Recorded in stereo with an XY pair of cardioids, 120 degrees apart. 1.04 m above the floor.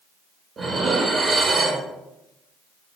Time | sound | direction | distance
0.6 | dishes clattering | 35° right | 0.7 m